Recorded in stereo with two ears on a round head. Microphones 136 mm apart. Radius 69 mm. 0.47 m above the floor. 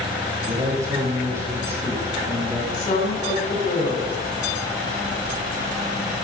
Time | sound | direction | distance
0.5 | a man speaking | 35° right (ahead or behind) | 3.5 m
2.7 | a woman speaking | 60° left (ahead or behind) | 4 m